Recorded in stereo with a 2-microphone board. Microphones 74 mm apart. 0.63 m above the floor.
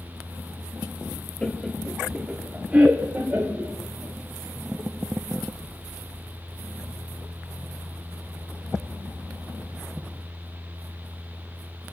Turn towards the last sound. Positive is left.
turn(degrees=-25)  # may be behind; listen again after turning